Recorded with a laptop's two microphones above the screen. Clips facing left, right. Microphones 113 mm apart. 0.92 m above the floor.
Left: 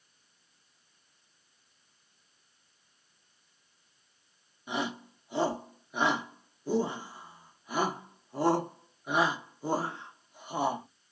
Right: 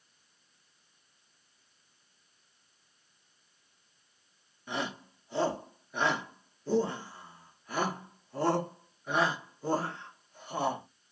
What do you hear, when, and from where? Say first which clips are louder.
4.7 s a shout: left 2 dB; 15° left (ahead or behind), 1.1 m